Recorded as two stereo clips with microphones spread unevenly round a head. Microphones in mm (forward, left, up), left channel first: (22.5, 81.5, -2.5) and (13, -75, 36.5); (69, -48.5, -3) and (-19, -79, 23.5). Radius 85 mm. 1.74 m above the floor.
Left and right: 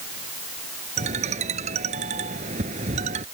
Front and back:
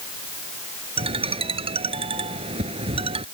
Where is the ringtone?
145° right.